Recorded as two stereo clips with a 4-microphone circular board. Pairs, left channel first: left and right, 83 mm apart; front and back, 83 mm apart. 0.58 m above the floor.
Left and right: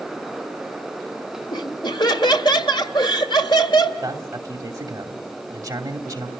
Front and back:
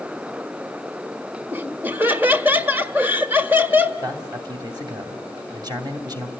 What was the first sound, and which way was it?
Laughter, 115° left.